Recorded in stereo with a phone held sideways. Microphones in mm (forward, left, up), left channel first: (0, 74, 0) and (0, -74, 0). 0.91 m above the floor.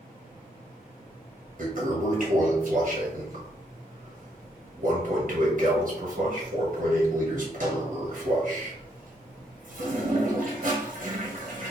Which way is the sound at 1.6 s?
60° right (ahead or behind).